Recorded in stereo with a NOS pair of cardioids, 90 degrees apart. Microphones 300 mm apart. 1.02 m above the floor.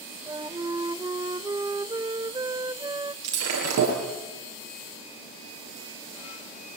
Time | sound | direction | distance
0.3 | a flute | 15° right | 0.6 m
3.2 | breaking glass | 55° right | 10 m